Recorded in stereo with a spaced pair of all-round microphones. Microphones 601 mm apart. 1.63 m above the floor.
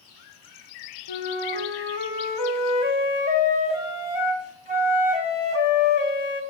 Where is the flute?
45° left (ahead or behind), 0.8 m.